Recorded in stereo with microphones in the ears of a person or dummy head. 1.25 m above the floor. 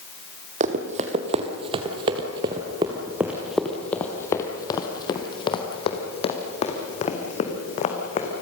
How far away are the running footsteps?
About 1.9 m.